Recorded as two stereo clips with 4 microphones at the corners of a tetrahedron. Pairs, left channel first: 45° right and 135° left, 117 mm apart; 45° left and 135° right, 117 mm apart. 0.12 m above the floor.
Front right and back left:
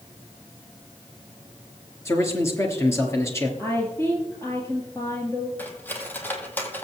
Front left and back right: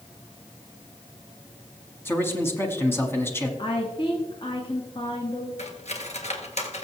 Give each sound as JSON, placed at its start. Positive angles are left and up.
{"t": 2.0, "sound": "a man speaking", "azimuth_deg": -5, "distance_m": 1.3}
{"t": 3.6, "sound": "a woman speaking", "azimuth_deg": 20, "distance_m": 1.5}
{"t": 5.6, "sound": "cutlery clinking", "azimuth_deg": 30, "distance_m": 1.4}